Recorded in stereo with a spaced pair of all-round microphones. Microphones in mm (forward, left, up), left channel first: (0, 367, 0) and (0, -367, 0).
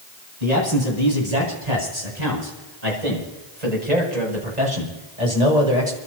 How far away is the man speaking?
About 10 m.